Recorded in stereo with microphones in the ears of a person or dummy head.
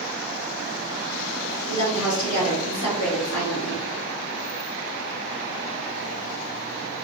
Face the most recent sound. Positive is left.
turn(degrees=70)  # may be behind; listen again after turning